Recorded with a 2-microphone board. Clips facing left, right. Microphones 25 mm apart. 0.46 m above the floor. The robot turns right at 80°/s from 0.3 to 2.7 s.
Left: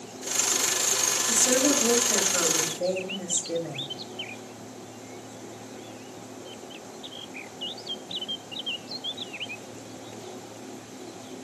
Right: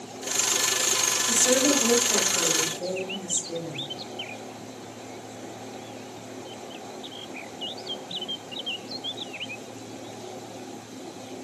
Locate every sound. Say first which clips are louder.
1.3 s a woman speaking: right 1 dB; 40° right, 2 m; by 3.9 s 75° left, 2 m